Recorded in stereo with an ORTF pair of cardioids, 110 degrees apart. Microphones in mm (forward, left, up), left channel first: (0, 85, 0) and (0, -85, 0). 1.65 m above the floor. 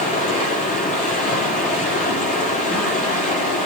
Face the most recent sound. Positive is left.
turn(degrees=50)